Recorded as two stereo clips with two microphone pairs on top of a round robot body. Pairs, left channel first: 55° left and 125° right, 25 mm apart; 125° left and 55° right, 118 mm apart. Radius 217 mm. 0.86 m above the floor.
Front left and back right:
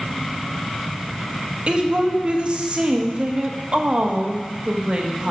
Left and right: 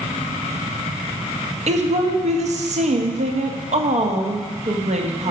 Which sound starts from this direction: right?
A woman speaking, at 1.7 s.